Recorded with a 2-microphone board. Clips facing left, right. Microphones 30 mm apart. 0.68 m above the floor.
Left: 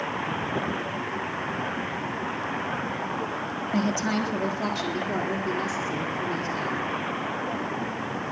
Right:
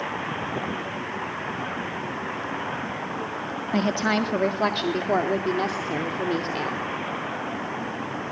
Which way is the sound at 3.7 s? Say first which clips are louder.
Right 3 dB; 30° right (ahead or behind).